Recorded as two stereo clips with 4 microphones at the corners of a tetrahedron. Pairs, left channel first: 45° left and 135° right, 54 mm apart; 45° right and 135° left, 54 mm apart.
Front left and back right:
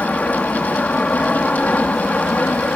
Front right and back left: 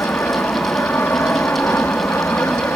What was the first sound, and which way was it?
An aircraft, 15° right.